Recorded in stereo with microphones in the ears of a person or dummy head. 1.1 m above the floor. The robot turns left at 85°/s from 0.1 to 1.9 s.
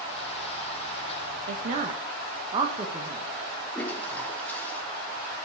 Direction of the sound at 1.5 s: 60° right (ahead or behind).